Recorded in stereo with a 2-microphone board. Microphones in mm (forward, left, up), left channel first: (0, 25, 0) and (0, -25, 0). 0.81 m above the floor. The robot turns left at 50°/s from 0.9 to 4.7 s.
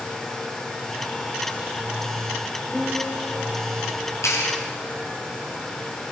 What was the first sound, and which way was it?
A piano, 5° left (ahead or behind).